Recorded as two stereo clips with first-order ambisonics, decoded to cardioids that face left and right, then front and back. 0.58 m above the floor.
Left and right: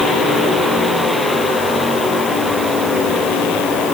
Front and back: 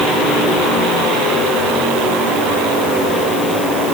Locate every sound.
Only background noise.